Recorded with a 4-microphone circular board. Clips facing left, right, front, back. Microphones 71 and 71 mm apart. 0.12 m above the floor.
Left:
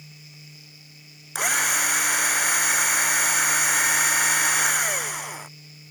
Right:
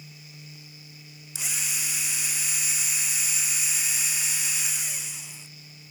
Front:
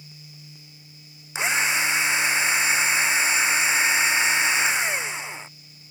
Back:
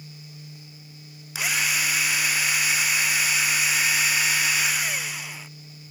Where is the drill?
65° left.